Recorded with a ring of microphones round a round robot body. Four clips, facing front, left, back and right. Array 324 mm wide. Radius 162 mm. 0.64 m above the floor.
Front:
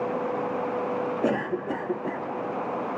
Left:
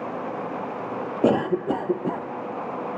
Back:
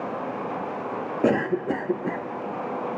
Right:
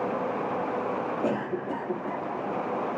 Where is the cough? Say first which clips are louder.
Left 8 dB, back 8 dB; 120° left, 0.7 m.